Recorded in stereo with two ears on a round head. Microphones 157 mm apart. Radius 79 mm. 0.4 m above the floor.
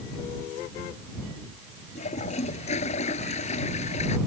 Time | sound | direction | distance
1.9 | a toilet flushing | 40° left (ahead or behind) | ?